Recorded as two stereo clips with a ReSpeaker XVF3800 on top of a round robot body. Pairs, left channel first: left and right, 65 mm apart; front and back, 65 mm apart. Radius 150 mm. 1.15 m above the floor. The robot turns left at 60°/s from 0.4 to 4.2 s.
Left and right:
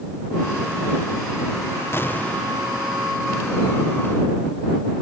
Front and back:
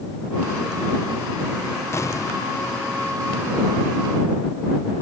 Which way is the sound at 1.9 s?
45° left.